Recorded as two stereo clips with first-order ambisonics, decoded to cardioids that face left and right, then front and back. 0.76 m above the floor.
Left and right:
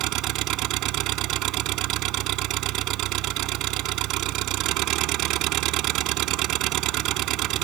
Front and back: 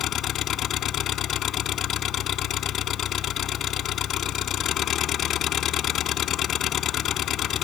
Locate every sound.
0.0 s an engine running: 50° right